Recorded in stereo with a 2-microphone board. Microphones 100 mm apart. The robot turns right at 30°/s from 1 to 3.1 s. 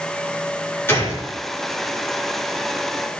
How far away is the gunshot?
About 2.5 m.